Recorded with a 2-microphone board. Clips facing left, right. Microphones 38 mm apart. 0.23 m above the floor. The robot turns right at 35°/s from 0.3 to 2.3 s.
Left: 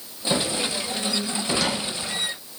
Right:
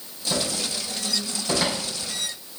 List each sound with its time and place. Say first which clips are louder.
0.3 s a cupboard door: left 3 dB; 40° left (ahead or behind), 5 m; by 1.8 s 10° right (ahead or behind), 5 m